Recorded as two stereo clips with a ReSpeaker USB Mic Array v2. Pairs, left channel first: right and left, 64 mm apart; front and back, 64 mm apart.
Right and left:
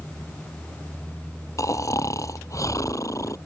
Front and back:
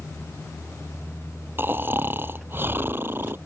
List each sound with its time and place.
1.6 s snoring: 125° right